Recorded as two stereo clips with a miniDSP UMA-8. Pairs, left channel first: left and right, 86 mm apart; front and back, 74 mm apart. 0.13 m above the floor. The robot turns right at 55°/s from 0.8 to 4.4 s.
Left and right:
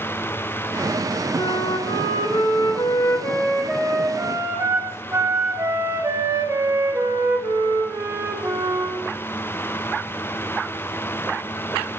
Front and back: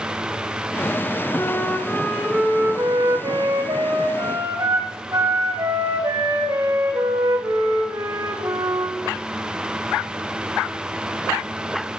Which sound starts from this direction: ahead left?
A flute, at 1.4 s.